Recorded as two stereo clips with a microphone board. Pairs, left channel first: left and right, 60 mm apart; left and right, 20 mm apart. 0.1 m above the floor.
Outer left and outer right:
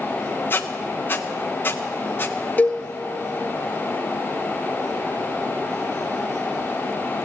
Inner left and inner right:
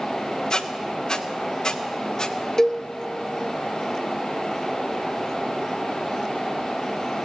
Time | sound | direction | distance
0.5 | a squeak | 35° left (ahead or behind) | 1.1 m
2.6 | a cowbell | 30° left (ahead or behind) | 1.0 m